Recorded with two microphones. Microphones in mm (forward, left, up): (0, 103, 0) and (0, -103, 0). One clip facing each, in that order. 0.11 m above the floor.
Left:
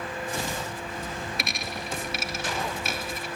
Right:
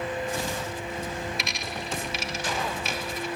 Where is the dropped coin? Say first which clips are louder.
Even; 55° left (ahead or behind), 0.5 m.